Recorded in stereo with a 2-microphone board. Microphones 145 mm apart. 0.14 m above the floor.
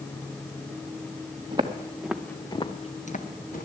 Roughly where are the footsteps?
Right.